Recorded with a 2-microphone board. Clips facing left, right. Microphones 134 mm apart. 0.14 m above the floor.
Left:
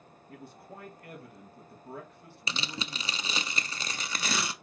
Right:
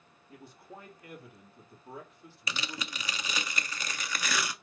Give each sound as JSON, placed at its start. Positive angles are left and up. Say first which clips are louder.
{"t": 0.3, "sound": "a man speaking", "louder": "left 2 dB", "side_deg": 60, "distance_m": 3.0}
{"t": 2.5, "sound": "tearing paper", "louder": "left 1 dB", "side_deg": 30, "distance_m": 0.5}